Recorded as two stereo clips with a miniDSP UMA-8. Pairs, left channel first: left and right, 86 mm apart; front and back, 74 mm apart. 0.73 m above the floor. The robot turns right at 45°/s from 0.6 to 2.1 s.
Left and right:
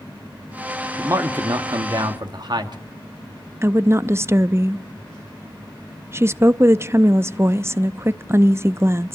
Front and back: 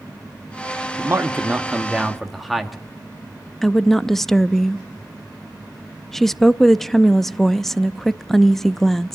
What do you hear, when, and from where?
1.0 s a man speaking: 140° right, 1.2 m; by 2.8 s 90° right, 1.2 m
3.6 s a woman speaking: 80° right, 0.6 m